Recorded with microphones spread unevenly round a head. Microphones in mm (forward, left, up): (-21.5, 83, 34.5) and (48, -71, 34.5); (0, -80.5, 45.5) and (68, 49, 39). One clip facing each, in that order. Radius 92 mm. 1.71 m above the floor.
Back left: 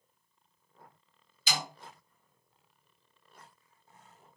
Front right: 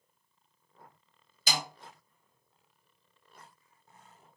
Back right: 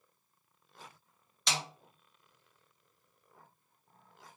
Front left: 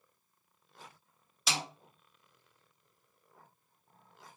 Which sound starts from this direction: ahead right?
A snare drum, at 1.5 s.